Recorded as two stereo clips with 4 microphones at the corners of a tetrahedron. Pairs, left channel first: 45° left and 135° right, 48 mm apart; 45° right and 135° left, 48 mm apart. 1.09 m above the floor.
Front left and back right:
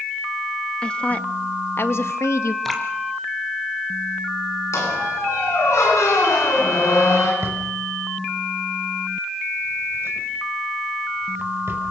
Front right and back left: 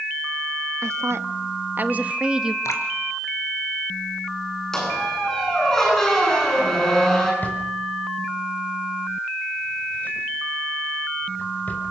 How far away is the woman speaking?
About 1.7 m.